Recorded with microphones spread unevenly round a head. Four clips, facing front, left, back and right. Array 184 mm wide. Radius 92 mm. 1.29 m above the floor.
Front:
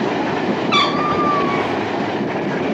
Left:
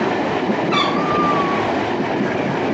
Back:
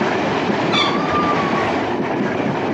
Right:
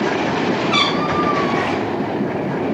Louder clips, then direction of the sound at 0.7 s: Left 1 dB, front 1 dB; 20° right.